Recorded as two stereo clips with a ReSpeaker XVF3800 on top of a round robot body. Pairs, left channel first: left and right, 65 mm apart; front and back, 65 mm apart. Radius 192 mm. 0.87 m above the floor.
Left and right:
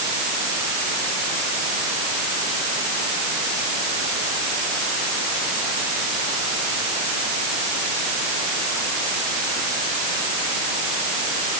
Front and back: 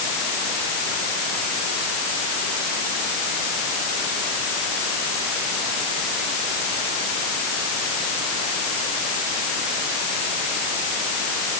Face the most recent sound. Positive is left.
No sound to turn to.